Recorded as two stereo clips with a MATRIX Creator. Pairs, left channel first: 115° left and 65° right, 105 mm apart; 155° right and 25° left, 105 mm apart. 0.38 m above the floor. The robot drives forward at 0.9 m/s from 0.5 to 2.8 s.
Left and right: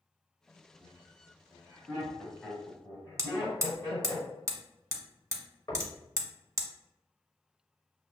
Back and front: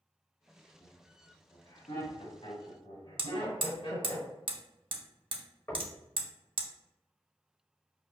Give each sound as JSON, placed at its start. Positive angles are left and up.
{"t": 0.8, "sound": "laughter", "azimuth_deg": -155, "distance_m": 2.0}
{"t": 3.2, "sound": "hammering", "azimuth_deg": -10, "distance_m": 0.7}
{"t": 5.7, "sound": "knocking", "azimuth_deg": 150, "distance_m": 0.9}